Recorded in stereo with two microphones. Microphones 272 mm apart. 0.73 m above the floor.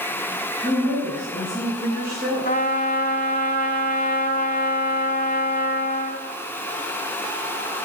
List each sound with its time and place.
0.6 s a woman speaking: 40° right (ahead or behind), 5.5 m
2.5 s a trumpet: 35° left (ahead or behind), 1.0 m